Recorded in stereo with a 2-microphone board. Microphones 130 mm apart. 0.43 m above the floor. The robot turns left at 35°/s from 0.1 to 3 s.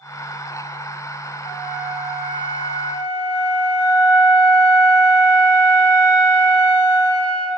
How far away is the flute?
About 3.5 m.